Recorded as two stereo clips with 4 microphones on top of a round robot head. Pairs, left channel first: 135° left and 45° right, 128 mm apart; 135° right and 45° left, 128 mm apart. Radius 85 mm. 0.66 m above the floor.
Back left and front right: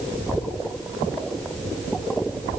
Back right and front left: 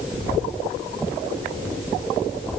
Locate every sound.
Only background noise.